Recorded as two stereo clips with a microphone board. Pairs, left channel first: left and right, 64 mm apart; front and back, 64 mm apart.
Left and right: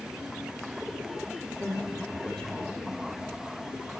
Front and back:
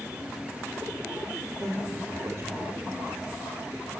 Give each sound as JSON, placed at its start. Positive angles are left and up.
{"t": 1.6, "sound": "a man speaking", "azimuth_deg": 165, "distance_m": 2.5}